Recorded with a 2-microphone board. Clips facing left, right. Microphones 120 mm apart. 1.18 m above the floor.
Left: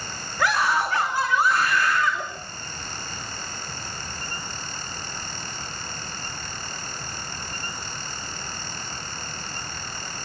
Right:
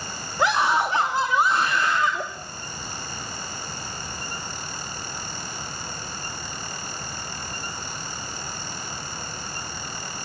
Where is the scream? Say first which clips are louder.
Right 2 dB; 25° right (ahead or behind), 2.5 m.